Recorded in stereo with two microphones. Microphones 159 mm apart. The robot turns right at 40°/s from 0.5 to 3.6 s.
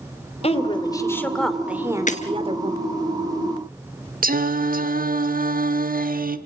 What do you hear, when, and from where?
0.4 s a woman speaking: 140° left, 2.5 m; by 2.9 s 125° right, 2.5 m
2.1 s breaking glass: 50° left (ahead or behind), 1.6 m; by 2.2 s 45° left (ahead or behind), 1.6 m
4.2 s singing: 65° right (ahead or behind), 1.1 m